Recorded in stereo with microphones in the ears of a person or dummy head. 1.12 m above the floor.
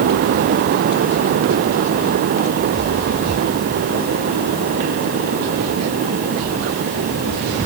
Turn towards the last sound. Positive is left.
No sound to turn to.